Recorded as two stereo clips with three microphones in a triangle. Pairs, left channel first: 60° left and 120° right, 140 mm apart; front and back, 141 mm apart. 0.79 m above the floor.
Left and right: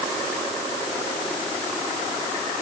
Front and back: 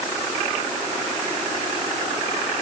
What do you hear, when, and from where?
Only background noise.